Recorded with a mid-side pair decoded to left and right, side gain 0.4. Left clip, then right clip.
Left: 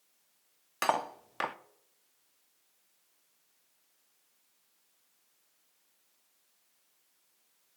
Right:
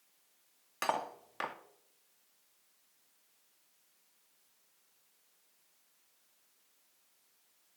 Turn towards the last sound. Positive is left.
turn(degrees=40)